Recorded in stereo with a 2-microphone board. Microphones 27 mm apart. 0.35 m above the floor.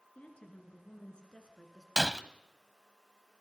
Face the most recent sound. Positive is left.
turn(degrees=-15)  # may be behind; listen again after turning